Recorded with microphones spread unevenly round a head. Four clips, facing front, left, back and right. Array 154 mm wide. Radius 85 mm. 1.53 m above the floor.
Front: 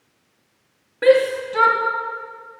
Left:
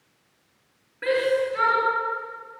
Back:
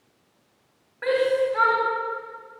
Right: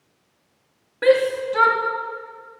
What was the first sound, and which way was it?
A shout, 50° right.